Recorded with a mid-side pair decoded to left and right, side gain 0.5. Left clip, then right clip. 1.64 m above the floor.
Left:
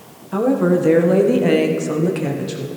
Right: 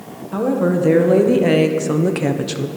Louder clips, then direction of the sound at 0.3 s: Left 2 dB; 10° left.